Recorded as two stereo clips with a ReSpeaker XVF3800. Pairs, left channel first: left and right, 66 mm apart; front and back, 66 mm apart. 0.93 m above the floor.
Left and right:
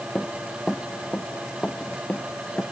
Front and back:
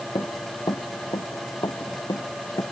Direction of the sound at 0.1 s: 10° left.